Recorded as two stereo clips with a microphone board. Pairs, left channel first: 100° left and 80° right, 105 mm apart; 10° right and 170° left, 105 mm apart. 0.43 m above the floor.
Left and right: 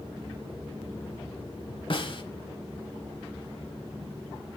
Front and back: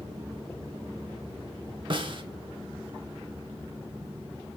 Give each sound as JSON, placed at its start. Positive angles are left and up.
{"t": 1.9, "sound": "a snare drum", "azimuth_deg": 135, "distance_m": 1.0}